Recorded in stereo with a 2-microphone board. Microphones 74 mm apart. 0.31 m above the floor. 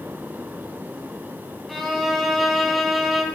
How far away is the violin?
About 0.9 m.